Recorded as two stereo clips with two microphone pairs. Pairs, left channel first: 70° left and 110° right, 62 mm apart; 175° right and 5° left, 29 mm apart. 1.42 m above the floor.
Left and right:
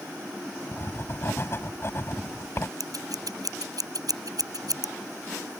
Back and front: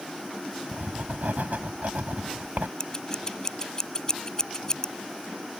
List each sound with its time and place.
0.7 s writing: 25° left
2.8 s scissors: 110° right